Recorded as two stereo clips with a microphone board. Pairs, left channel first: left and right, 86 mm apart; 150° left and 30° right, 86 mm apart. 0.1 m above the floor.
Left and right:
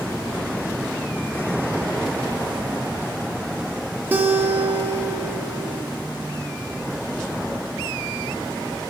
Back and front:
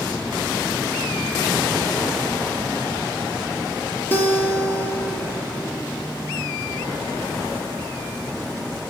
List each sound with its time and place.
4.1 s a guitar: 150° right, 0.9 m